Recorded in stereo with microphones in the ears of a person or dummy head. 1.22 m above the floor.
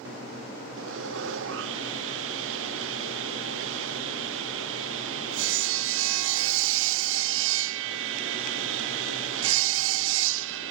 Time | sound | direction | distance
0.8 | sawing | 80° right | 0.8 m